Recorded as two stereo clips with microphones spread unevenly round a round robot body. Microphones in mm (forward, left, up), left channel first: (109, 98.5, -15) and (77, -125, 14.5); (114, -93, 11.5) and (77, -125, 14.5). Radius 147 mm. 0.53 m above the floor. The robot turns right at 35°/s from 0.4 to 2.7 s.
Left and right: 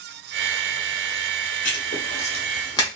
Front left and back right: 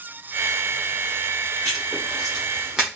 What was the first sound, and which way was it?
Writing, 105° left.